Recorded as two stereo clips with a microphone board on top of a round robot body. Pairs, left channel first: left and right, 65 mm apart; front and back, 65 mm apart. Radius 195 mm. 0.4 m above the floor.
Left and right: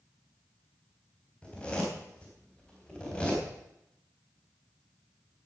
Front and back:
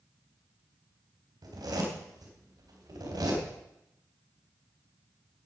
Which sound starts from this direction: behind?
A zipper, at 1.4 s.